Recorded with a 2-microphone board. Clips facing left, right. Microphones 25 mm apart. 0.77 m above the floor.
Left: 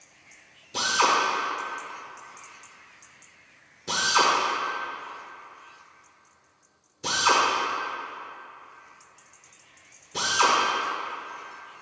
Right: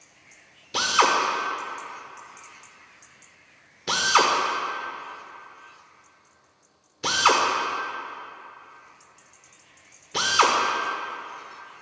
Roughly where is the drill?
Right.